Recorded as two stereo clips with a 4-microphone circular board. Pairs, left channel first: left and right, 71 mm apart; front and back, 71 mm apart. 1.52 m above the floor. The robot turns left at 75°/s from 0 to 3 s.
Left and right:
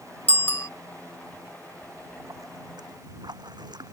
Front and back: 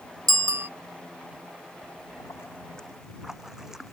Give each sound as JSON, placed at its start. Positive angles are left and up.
{"t": 0.3, "sound": "a bicycle bell", "azimuth_deg": 155}
{"t": 1.8, "sound": "a splash", "azimuth_deg": -10}